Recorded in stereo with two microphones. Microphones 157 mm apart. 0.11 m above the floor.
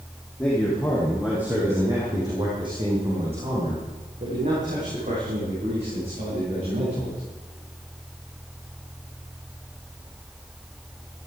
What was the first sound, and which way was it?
A man speaking, 10° left (ahead or behind).